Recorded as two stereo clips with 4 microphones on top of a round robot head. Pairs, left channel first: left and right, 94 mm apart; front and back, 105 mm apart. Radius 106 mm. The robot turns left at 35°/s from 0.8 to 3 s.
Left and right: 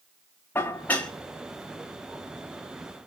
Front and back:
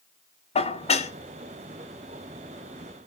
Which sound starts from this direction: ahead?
Dishes clattering, at 0.6 s.